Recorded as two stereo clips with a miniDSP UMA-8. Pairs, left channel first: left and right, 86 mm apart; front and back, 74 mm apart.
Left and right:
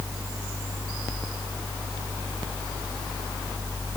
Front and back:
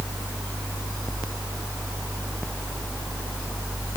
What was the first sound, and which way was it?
Only background noise.